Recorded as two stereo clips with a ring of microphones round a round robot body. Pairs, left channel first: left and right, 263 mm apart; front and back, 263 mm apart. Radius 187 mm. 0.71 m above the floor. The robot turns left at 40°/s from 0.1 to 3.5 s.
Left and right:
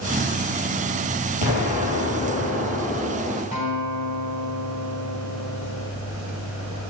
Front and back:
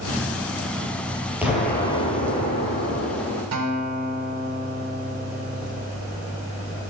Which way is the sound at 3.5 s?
160° left.